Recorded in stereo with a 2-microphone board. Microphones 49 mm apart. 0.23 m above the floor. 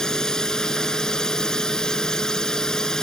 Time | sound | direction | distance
0.0 | a drone | 10° left (ahead or behind) | ?